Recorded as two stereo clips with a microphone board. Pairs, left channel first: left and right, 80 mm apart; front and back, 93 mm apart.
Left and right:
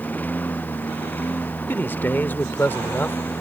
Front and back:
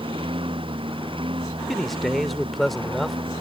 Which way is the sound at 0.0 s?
160° left.